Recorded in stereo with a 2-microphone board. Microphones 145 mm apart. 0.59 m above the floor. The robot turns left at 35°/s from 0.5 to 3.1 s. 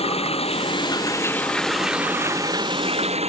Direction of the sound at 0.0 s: 45° left.